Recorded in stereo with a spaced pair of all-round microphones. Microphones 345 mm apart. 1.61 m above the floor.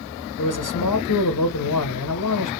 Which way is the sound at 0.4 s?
60° left (ahead or behind).